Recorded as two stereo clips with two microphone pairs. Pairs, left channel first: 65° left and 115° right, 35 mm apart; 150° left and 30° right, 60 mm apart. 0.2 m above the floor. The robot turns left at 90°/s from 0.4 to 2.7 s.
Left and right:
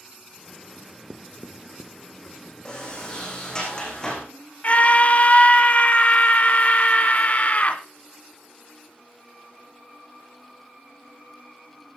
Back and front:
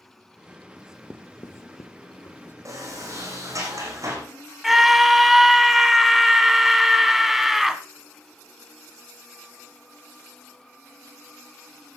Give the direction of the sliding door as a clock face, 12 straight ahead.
12 o'clock.